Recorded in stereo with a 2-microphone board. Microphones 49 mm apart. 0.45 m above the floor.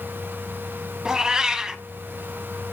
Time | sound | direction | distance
1.1 | a cat meowing | 15° right (ahead or behind) | 0.8 m